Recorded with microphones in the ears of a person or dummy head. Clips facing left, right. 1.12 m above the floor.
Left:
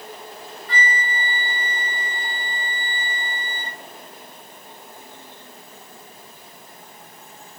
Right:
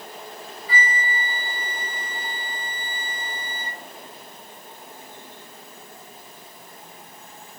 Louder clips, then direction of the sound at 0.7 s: Left 1 dB; 5° right (ahead or behind).